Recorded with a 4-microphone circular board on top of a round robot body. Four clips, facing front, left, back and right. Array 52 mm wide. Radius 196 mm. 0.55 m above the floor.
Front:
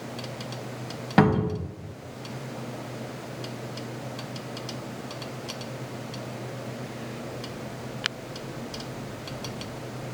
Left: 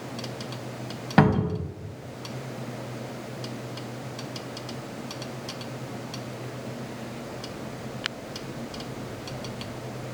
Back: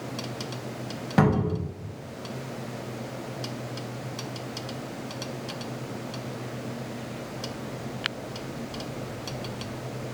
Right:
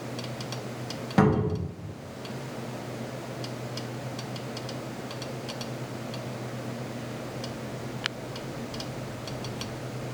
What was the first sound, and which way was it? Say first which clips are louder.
A cupboard door: left 2 dB, front 2 dB; 55° left.